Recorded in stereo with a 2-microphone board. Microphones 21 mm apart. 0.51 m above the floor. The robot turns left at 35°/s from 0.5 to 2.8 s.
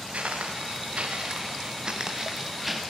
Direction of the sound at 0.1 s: 80° right.